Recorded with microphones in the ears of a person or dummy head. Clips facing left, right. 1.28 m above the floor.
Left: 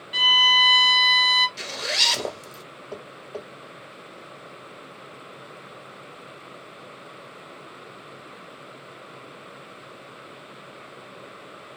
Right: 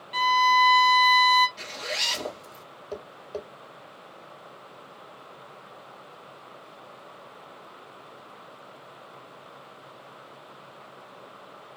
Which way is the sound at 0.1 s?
10° left (ahead or behind).